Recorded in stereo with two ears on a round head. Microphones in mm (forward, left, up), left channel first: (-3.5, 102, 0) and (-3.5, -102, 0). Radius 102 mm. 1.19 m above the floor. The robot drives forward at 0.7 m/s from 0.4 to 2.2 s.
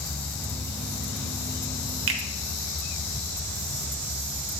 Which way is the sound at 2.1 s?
60° right (ahead or behind).